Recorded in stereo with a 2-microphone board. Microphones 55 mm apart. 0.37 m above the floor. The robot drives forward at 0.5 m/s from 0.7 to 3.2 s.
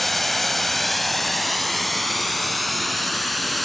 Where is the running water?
Centre (ahead or behind), 1.0 m.